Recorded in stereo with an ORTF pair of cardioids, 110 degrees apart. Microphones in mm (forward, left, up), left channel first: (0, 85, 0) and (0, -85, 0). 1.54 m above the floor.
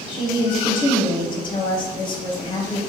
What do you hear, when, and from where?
0.1 s a woman speaking: 30° left, 0.8 m